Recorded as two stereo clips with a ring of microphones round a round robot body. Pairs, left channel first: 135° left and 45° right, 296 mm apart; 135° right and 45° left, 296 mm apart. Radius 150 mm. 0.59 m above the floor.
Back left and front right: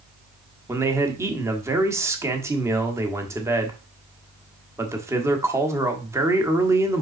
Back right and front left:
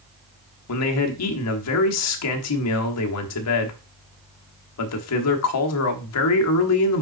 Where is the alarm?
I don't hear an alarm.